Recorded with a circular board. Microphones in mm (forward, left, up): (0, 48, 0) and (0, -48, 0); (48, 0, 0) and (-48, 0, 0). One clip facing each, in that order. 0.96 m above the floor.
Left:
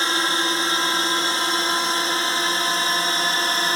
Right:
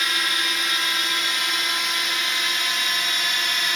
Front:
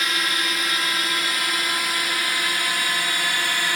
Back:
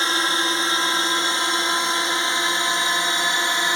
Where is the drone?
135° left; by 3.8 s 125° left.